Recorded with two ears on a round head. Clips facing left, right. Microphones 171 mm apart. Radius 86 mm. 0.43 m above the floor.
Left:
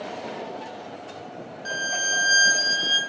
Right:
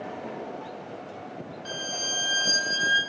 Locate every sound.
1.6 s a violin: 15° left (ahead or behind), 0.8 m